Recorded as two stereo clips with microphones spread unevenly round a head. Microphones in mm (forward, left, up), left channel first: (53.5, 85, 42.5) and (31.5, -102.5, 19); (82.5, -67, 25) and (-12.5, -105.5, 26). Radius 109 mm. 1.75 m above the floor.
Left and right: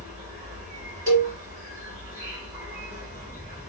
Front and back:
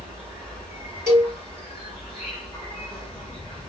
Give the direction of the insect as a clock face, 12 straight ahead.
5 o'clock.